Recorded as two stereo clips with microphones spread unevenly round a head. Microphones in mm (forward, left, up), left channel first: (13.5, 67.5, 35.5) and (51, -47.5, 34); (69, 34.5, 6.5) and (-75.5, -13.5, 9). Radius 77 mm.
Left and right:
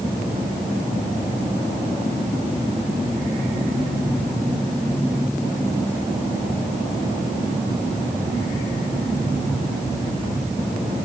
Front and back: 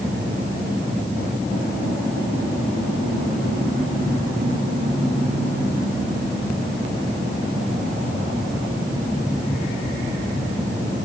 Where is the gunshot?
No gunshot in this recording.